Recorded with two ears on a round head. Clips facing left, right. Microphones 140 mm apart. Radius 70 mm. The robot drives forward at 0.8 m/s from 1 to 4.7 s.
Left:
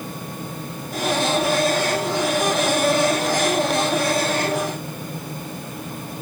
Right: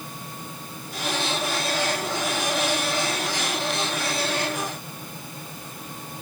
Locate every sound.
Only background noise.